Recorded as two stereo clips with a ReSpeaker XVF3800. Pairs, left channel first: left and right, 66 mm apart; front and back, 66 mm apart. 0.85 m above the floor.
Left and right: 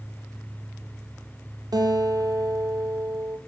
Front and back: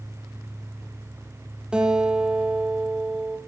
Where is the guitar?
105° right, 5.5 m.